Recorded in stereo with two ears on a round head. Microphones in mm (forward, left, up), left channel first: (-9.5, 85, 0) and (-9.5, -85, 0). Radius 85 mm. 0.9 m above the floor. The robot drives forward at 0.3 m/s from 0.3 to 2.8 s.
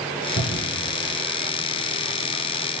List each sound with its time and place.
0.4 s a cupboard door: 50° left (ahead or behind), 3 m; by 0.9 s 45° left (ahead or behind), 3 m